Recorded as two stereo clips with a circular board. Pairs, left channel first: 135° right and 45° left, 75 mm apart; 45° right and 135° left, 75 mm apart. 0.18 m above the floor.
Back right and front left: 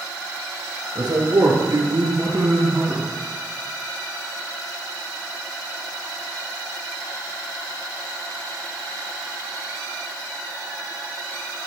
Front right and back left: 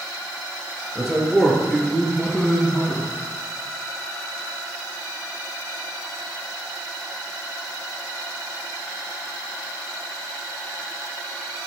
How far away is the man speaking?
About 3 m.